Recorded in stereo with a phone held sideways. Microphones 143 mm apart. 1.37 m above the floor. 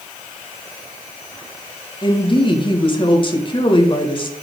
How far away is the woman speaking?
About 1.7 m.